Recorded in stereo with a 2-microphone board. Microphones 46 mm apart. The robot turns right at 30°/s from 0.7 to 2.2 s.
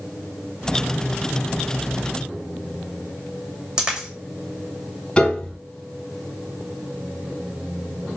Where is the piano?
25° left (ahead or behind), 1.4 m.